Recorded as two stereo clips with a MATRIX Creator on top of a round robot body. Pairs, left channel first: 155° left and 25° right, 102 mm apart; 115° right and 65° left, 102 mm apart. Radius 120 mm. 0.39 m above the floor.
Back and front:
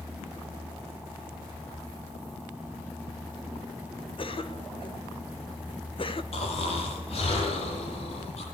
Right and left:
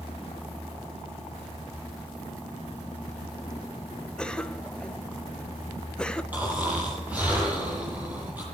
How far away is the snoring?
About 9.5 m.